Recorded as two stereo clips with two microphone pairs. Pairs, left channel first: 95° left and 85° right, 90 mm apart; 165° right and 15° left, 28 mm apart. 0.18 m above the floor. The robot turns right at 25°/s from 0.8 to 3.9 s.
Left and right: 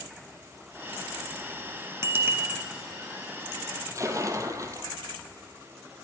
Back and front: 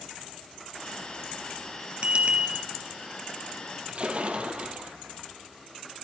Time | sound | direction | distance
2.0 | a bicycle bell | 30° right | 3 m
3.9 | a splash | 35° right | 3 m